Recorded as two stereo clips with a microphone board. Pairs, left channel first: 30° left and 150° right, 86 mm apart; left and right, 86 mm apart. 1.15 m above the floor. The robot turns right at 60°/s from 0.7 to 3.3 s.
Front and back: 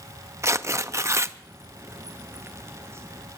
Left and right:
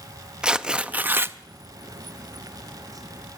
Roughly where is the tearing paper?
Behind.